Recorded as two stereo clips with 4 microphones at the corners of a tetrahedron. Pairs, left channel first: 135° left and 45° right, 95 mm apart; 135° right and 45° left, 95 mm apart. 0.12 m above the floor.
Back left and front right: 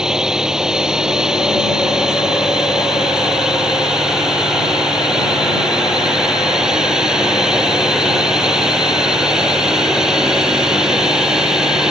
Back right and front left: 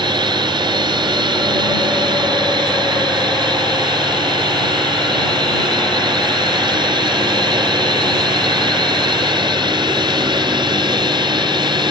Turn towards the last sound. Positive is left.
turn(degrees=35)